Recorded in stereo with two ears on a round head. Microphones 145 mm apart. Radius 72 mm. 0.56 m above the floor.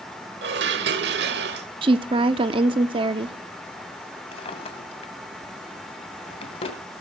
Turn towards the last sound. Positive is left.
turn(degrees=35)  # may be behind; listen again after turning